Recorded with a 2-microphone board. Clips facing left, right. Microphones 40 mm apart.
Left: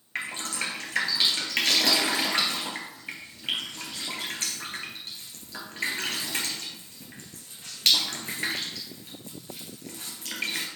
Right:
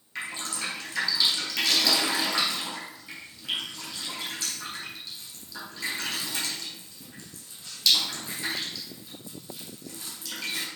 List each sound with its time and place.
0.1 s dripping: 50° left (ahead or behind), 2 m